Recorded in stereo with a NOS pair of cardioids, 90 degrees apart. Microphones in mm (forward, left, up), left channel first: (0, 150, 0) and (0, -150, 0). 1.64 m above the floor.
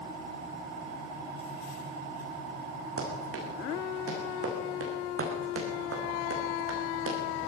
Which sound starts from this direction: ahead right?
Running footsteps, at 3.0 s.